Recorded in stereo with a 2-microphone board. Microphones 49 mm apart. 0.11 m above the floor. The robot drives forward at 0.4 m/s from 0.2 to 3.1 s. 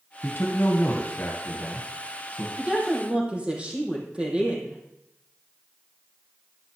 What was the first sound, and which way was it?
A man speaking, 45° left (ahead or behind).